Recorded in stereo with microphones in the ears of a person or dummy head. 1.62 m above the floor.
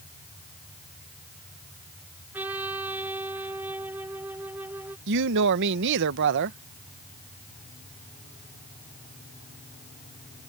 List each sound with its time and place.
2.3 s a trumpet: 10° right (ahead or behind)
5.1 s a woman speaking: 60° right (ahead or behind)